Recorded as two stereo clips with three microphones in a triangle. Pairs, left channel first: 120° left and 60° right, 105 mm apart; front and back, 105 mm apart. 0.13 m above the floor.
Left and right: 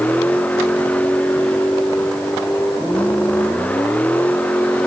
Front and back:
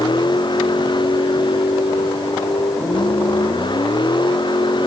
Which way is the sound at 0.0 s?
45° left.